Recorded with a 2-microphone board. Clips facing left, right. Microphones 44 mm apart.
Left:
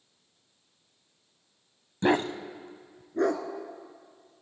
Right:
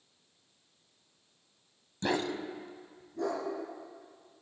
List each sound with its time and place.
2.0 s a dog barking: 30° left (ahead or behind), 0.6 m; by 3.4 s 65° left (ahead or behind), 1.6 m